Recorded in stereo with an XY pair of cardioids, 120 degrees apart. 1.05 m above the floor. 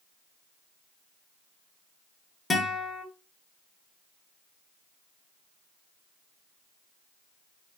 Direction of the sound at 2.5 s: 20° left.